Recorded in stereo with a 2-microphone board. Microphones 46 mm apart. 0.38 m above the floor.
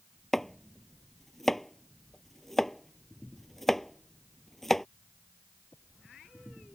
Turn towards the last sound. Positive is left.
turn(degrees=5)  # may be behind; listen again after turning